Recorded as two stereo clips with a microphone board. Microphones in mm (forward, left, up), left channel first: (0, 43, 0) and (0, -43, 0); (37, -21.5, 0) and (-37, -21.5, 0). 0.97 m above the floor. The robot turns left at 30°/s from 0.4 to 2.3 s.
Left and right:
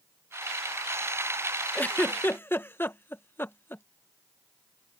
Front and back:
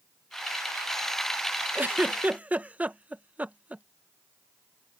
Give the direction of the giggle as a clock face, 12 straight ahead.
7 o'clock.